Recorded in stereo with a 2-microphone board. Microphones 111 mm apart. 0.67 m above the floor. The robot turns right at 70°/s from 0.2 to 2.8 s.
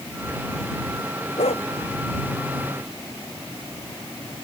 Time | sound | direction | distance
1.4 | a dog barking | 90° left | ?